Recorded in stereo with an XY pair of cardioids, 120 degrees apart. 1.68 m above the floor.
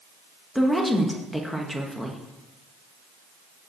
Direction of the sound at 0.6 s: Straight ahead.